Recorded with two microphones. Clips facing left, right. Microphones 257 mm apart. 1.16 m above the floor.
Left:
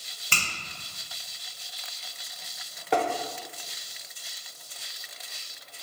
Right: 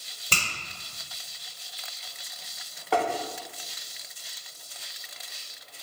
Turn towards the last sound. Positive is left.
turn(degrees=20)  # may be behind; listen again after turning